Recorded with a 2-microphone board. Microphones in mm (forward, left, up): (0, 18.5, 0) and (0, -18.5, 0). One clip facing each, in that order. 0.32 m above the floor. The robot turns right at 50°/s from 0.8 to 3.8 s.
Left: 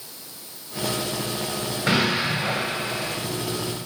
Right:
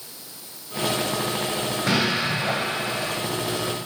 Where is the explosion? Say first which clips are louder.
Left 2 dB; 145° left, 2.5 m; by 3.2 s 150° right, 2.5 m.